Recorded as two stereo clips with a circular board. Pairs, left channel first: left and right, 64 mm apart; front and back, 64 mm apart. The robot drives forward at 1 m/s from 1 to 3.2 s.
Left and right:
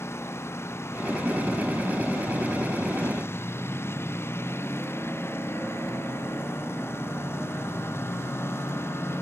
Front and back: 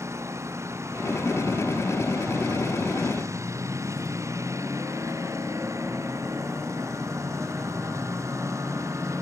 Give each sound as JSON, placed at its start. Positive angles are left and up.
{"t": 0.0, "sound": "a lawn mower", "azimuth_deg": 140}